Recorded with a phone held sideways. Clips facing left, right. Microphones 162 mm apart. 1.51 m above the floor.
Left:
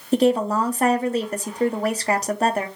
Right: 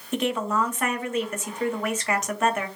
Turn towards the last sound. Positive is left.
turn(degrees=35)  # may be behind; listen again after turning